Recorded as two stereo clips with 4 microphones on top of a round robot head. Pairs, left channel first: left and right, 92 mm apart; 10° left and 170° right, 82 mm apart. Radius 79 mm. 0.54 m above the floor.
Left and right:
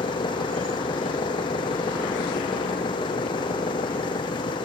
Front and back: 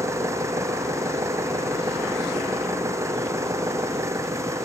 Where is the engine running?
135° left.